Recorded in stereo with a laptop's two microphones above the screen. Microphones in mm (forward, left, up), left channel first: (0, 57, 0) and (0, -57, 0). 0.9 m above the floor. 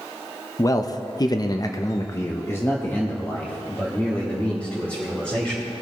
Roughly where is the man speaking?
Left.